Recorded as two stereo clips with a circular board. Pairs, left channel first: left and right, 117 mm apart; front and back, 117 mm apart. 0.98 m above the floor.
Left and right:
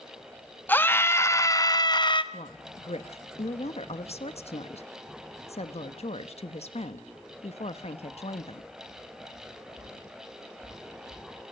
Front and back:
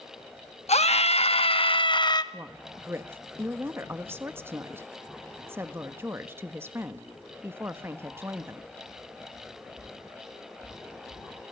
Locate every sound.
0.7 s a scream: 15° left, 1.6 m; by 2.2 s 50° left, 1.2 m
2.3 s a woman speaking: 110° left, 1.2 m